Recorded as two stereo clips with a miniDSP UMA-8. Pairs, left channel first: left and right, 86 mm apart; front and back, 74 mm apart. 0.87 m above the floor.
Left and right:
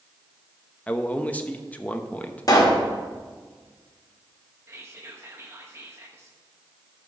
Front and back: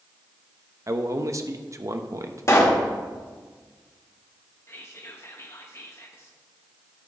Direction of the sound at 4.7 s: 45° right.